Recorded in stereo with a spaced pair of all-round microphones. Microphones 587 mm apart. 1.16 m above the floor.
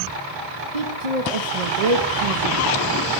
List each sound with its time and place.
0.7 s a woman speaking: 80° right, 1.4 m